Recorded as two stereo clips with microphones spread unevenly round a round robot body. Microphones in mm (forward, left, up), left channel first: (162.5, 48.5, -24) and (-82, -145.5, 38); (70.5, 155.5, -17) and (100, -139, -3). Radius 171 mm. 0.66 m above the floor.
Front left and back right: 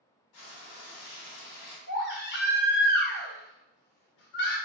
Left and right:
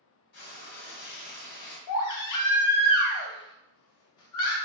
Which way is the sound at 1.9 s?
90° left.